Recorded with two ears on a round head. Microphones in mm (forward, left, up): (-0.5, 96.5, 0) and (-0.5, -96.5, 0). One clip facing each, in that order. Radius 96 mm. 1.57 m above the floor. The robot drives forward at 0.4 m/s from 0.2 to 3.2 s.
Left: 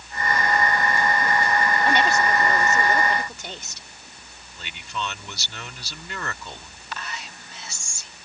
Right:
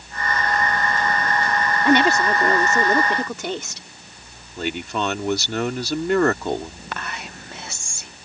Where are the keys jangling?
No keys jangling in this recording.